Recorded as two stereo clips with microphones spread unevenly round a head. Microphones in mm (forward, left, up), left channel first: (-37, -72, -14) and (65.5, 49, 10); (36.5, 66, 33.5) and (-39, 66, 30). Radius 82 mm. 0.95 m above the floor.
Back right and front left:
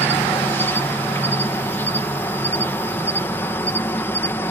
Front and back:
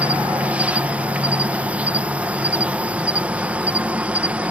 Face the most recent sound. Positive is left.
turn(degrees=-150)